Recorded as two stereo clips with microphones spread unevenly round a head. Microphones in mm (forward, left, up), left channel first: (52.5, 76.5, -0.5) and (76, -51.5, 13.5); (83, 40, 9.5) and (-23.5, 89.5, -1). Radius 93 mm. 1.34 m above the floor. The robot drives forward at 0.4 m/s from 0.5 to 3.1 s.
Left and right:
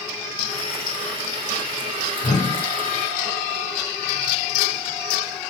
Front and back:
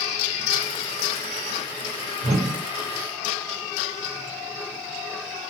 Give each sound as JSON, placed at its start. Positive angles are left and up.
{"t": 2.2, "sound": "a whoosh", "azimuth_deg": 160, "distance_m": 1.2}